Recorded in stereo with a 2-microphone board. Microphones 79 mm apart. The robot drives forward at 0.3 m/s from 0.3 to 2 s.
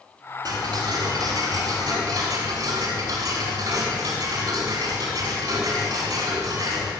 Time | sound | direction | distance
0.5 | ticking | 60° right (ahead or behind) | 4.5 m